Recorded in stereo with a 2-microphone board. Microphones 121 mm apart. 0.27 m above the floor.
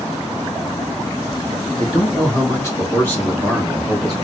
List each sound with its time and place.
1.8 s a man speaking: 35° left (ahead or behind), 2.5 m; by 4.2 s 5° right (ahead or behind), 2.5 m